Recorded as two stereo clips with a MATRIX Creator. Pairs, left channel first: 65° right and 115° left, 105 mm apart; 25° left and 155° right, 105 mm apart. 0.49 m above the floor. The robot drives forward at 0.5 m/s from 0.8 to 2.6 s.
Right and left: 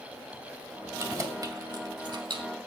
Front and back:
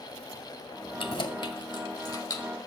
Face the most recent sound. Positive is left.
turn(degrees=80)